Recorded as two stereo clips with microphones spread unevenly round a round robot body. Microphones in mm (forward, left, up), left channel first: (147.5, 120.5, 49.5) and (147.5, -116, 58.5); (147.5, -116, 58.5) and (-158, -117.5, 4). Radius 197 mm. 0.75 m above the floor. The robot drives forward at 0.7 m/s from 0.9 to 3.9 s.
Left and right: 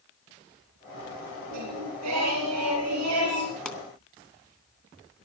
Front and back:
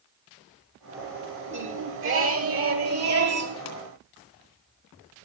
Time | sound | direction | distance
1.5 | singing | 125° right | 4 m
3.6 | a pop | 5° left | 3 m